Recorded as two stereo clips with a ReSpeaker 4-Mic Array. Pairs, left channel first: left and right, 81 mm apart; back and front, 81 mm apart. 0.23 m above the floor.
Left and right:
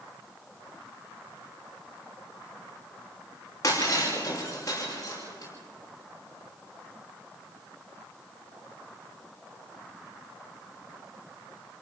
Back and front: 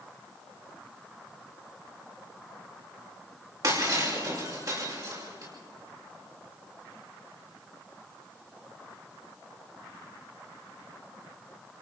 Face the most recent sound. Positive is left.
turn(degrees=40)